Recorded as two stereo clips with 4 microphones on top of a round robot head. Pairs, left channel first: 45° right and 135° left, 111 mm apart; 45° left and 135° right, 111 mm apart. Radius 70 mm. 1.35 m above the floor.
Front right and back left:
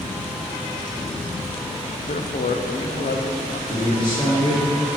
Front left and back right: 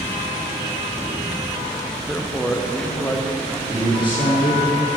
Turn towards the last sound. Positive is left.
turn(degrees=5)